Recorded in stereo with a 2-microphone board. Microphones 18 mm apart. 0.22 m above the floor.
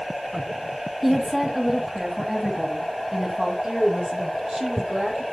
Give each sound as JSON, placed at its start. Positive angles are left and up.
{"t": 1.0, "sound": "a woman speaking", "side_deg": -10, "distance_m": 1.5}
{"t": 3.6, "sound": "a woman speaking", "side_deg": -40, "distance_m": 4.0}